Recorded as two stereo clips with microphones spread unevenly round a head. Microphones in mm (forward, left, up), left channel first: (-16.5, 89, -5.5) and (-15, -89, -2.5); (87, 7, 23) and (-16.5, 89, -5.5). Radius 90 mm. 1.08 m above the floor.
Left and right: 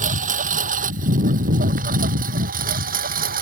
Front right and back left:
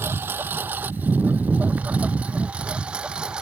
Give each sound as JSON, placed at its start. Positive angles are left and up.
{"t": 0.0, "sound": "a lawn mower", "azimuth_deg": -135}